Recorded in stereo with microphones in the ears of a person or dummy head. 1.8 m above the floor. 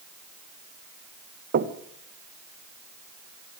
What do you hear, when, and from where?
1.5 s knocking: 50° right (ahead or behind), 1.5 m